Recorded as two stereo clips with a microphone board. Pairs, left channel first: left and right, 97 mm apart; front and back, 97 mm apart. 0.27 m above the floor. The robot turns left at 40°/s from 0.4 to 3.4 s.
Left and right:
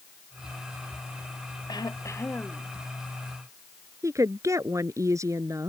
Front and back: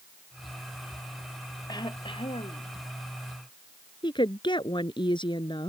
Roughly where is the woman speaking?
Ahead right.